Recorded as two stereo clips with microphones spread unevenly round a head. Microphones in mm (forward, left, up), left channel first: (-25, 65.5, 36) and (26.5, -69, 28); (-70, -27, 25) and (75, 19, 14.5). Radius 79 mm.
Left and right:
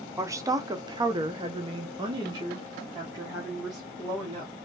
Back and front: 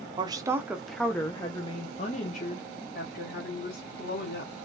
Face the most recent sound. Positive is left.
turn(degrees=-135)